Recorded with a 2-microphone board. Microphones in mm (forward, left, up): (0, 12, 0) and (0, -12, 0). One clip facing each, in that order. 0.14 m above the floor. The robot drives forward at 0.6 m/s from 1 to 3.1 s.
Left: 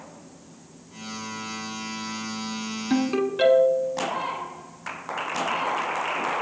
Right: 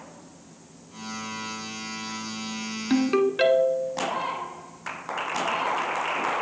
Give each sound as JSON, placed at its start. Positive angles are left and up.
{"t": 2.9, "sound": "a ringtone", "side_deg": -15, "distance_m": 0.9}